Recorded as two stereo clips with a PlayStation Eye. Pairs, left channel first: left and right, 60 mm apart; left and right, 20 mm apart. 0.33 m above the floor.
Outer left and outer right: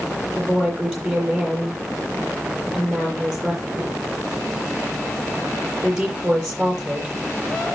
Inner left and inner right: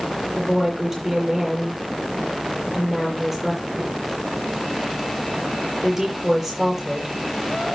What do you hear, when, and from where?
0.4 s a woman speaking: 10° right (ahead or behind), 8 m